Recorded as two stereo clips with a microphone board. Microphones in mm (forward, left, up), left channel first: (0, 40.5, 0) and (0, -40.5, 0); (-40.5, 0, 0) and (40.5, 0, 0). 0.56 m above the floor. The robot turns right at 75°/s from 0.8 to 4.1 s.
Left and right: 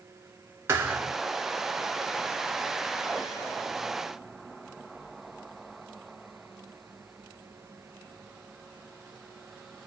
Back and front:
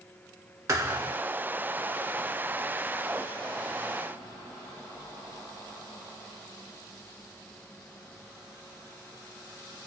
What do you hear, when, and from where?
0.7 s a thud: 40° right, 0.7 m; by 1.2 s 10° right, 0.7 m